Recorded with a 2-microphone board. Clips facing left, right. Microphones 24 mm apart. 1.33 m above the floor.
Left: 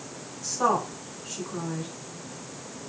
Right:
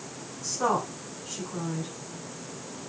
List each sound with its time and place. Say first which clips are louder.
0.4 s a woman speaking: left 2 dB; 40° left (ahead or behind), 9.5 m